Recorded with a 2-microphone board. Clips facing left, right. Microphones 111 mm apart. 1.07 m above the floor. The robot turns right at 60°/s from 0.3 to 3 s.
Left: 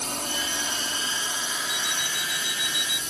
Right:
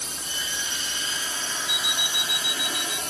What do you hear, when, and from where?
0.0 s a drone: 60° left (ahead or behind); by 3.1 s 60° right (ahead or behind)
1.7 s an alarm clock: 105° right; by 3.0 s 25° right